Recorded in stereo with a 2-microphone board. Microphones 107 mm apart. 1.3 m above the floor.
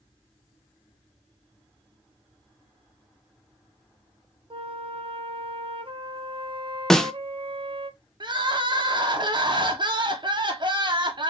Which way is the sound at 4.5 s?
55° right (ahead or behind).